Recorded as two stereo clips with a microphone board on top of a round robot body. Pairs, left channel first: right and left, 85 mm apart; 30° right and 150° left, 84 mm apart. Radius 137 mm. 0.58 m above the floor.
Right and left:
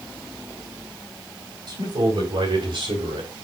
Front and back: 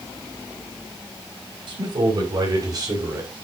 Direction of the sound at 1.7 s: 125° left.